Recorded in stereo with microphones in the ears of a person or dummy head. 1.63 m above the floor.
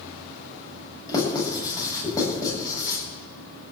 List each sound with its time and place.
1.1 s writing: 25° left (ahead or behind), 8 m